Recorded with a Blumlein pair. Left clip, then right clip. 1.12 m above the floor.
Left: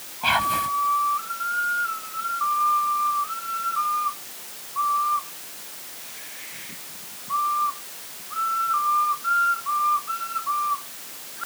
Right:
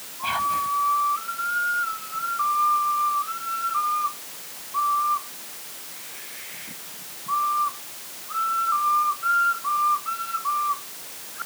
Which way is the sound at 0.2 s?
25° left.